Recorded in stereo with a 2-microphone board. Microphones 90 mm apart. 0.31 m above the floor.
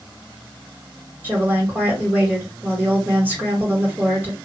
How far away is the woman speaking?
About 1.7 m.